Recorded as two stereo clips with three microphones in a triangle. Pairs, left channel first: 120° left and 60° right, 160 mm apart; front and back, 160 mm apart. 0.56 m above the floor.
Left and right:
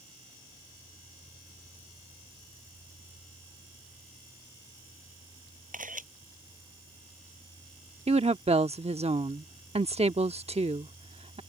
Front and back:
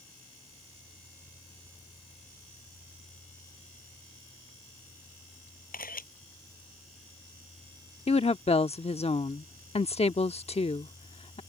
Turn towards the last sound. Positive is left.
turn(degrees=-30)